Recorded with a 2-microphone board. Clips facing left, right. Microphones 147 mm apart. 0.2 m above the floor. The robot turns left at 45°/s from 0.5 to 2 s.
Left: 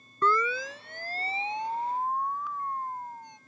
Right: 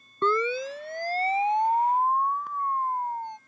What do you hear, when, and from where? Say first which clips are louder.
0.2 s a siren: right 3 dB; 25° right (ahead or behind); by 3.4 s 60° right (ahead or behind)